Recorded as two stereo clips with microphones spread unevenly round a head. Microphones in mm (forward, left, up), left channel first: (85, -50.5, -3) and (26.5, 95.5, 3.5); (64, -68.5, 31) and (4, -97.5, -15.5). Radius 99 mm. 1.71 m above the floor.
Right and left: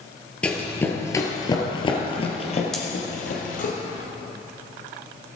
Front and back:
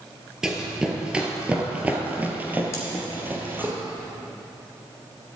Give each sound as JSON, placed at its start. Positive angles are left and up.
{"t": 0.4, "sound": "running footsteps", "azimuth_deg": 15, "distance_m": 1.9}
{"t": 2.7, "sound": "cutlery clinking", "azimuth_deg": 20, "distance_m": 2.5}